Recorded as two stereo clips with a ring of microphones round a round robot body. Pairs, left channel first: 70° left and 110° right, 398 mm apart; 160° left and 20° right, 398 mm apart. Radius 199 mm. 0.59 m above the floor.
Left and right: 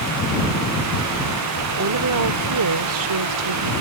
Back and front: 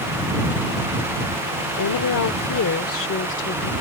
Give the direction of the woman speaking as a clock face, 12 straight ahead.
5 o'clock.